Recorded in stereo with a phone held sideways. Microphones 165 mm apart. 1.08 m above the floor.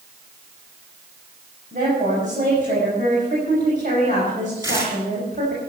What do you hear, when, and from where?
1.7 s a woman speaking: 55° right (ahead or behind), 6 m
4.6 s tearing paper: 15° right (ahead or behind), 5 m